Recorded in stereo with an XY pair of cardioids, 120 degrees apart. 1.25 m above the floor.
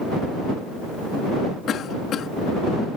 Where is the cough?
55° left.